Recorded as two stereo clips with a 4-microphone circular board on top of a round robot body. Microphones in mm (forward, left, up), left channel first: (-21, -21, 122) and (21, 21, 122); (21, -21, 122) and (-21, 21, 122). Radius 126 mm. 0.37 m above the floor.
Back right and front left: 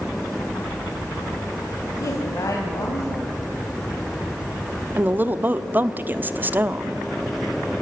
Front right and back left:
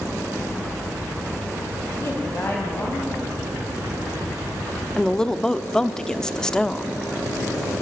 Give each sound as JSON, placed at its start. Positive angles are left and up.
{"t": 2.0, "sound": "a woman speaking", "azimuth_deg": -100, "distance_m": 3.0}
{"t": 5.0, "sound": "a woman speaking", "azimuth_deg": 25, "distance_m": 0.9}